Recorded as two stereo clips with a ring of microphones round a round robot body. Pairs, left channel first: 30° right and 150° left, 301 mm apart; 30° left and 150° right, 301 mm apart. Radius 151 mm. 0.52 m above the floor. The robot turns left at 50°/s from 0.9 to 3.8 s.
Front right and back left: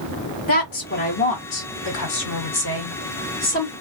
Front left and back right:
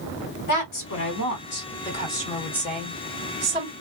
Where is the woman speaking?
30° left, 2.0 m; by 3.7 s 110° right, 2.0 m.